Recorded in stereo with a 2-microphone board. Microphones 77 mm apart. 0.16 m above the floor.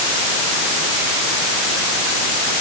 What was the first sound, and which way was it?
Only background noise.